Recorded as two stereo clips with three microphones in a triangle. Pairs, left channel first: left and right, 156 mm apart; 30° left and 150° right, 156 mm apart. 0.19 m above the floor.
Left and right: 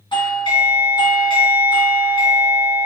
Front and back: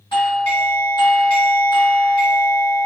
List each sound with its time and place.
0.1 s a doorbell: 60° left, 2 m